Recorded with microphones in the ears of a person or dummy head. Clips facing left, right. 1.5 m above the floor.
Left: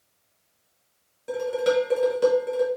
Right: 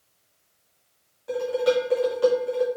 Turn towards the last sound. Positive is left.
turn(degrees=25)  # may be behind; listen again after turning